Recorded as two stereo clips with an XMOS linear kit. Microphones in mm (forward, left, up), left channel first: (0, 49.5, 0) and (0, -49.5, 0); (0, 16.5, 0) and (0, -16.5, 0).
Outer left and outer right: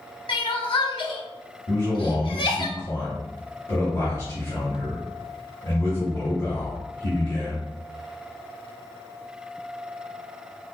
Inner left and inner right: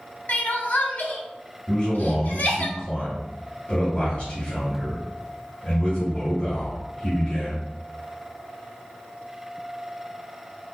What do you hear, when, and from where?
0.3 s crying: 55° left (ahead or behind), 0.7 m
1.7 s a man speaking: 35° left (ahead or behind), 1.7 m